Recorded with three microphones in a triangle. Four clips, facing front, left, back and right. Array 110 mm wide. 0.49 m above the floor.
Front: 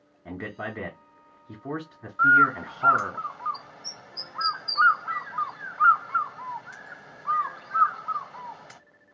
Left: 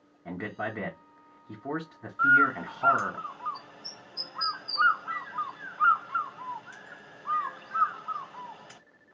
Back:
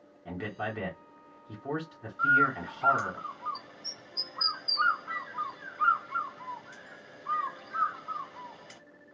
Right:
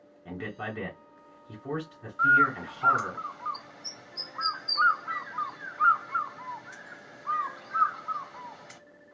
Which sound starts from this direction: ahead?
A bird, at 2.2 s.